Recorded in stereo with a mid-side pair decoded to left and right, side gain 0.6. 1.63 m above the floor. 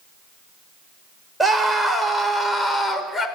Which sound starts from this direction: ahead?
A scream, at 1.4 s.